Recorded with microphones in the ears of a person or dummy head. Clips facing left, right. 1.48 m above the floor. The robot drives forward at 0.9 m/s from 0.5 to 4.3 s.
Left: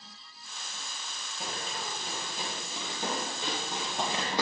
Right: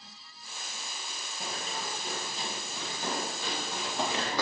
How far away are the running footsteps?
About 1.8 m.